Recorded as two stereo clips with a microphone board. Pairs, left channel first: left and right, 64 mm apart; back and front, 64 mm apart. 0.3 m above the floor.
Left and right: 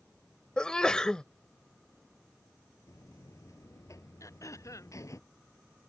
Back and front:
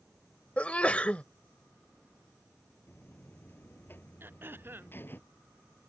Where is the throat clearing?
55° left.